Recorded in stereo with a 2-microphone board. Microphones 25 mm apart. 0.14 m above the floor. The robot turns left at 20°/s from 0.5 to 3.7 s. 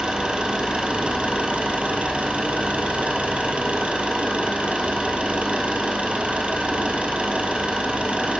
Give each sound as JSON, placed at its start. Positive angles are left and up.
{"t": 0.0, "sound": "an engine running", "azimuth_deg": -50, "distance_m": 3.5}